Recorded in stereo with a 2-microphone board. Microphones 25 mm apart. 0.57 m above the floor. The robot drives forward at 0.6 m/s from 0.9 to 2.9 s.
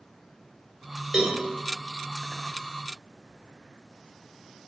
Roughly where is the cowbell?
Right.